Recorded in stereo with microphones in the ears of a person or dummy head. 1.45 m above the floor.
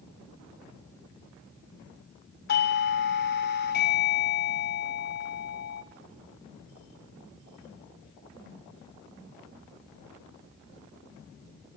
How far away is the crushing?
I don't hear crushing.